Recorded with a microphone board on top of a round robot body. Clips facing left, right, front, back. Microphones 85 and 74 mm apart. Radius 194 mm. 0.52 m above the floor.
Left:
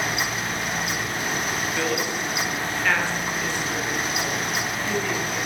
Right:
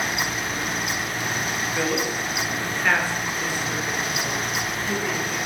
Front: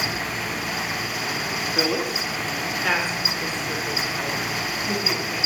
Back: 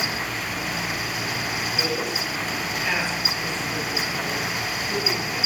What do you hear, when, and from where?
1.8 s a woman speaking: 15° right, 1.8 m; by 5.4 s 5° right, 4.5 m